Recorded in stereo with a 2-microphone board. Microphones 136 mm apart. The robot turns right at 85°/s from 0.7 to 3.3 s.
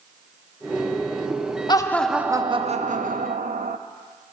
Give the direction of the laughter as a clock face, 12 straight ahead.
7 o'clock.